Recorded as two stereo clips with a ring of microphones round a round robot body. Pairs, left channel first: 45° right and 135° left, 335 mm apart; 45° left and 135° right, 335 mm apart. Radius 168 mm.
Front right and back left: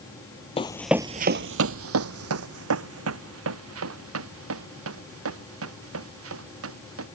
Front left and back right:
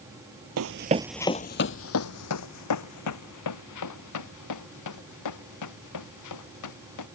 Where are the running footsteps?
110° right; by 7.0 s 85° left.